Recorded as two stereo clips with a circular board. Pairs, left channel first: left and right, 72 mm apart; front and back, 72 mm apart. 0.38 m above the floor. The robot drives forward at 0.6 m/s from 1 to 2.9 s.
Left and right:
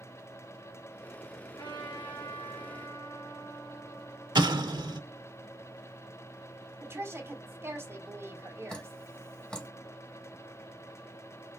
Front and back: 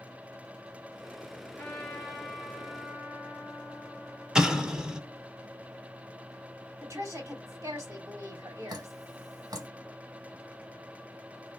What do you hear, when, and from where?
1.6 s a trumpet: 70° left, 1.6 m; by 5.2 s 100° left, 1.5 m
4.3 s an explosion: 100° right, 0.7 m
6.8 s a woman speaking: 140° right, 2.5 m
8.7 s dripping: 165° left, 0.9 m